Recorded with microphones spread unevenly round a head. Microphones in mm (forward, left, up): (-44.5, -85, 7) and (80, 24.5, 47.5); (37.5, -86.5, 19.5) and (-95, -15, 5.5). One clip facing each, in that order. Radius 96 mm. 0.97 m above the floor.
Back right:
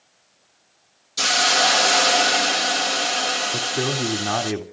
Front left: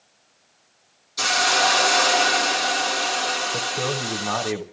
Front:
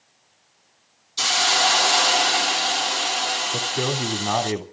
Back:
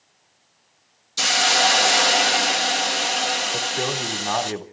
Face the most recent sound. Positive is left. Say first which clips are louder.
# back right 2 dB, front 1 dB
turn(degrees=-105)